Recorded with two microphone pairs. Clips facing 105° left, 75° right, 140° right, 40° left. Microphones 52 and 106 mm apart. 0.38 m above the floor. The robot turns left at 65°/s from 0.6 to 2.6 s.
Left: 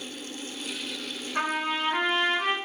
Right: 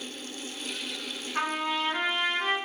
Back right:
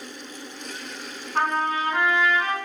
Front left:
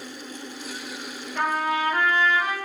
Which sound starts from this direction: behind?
A trumpet, at 1.4 s.